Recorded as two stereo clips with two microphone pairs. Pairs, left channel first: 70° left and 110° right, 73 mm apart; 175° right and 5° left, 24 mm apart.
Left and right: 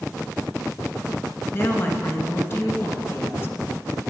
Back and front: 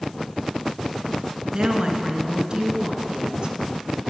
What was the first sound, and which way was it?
A woman speaking, 35° left.